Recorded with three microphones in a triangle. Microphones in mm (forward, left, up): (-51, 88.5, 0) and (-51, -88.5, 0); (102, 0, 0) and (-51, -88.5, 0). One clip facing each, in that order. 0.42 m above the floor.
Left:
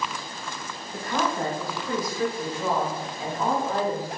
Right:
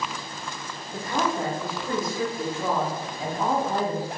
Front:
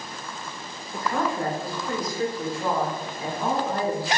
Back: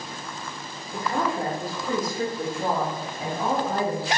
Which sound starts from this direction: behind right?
A woman speaking, at 0.9 s.